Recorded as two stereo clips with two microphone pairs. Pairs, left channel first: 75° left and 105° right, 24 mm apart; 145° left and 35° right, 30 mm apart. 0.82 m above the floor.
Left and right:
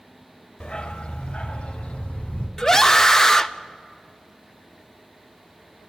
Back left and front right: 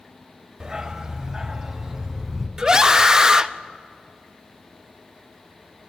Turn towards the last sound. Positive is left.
turn(degrees=25)